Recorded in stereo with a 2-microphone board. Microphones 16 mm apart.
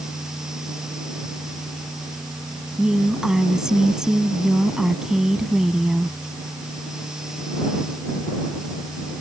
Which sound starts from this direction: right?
A woman speaking, at 2.8 s.